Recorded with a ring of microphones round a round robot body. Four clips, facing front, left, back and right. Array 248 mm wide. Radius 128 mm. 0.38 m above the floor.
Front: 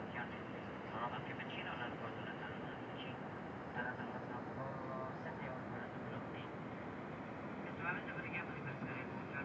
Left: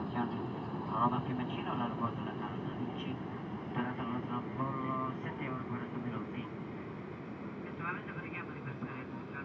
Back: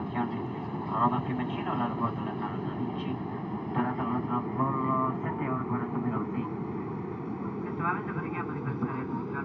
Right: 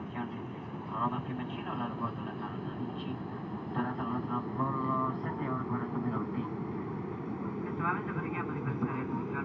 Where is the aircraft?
175° left; by 9.5 s 145° right.